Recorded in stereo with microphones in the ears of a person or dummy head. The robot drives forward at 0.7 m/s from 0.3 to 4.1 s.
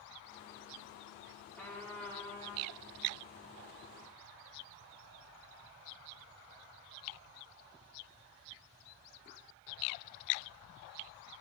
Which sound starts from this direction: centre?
A trumpet, at 1.6 s.